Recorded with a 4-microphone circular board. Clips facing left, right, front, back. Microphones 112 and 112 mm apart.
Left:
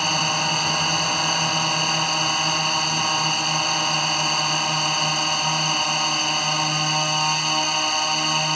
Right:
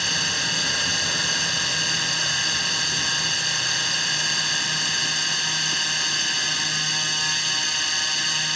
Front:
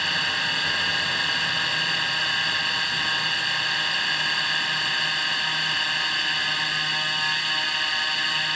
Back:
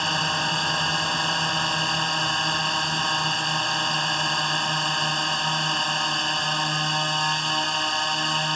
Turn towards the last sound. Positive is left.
turn(degrees=125)